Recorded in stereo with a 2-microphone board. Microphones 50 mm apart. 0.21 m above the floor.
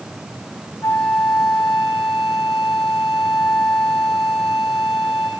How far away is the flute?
About 3.5 m.